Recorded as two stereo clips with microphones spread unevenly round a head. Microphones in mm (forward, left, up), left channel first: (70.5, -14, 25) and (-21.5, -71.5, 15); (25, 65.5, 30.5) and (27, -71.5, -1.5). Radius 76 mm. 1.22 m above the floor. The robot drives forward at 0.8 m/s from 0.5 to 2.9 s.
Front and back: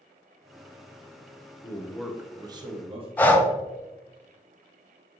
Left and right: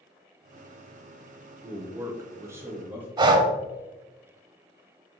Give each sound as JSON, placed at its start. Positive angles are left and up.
{"t": 1.6, "sound": "a man speaking", "azimuth_deg": -35, "distance_m": 0.7}
{"t": 3.2, "sound": "breathing", "azimuth_deg": -45, "distance_m": 0.6}